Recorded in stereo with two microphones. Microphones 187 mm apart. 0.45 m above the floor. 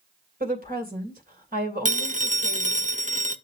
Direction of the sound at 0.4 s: 50° right (ahead or behind).